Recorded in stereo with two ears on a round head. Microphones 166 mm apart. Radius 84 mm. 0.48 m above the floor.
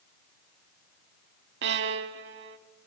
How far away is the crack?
I don't hear a crack.